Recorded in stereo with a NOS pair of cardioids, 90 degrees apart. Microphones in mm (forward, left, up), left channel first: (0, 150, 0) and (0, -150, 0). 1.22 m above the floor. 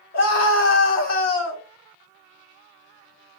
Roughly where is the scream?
Ahead left.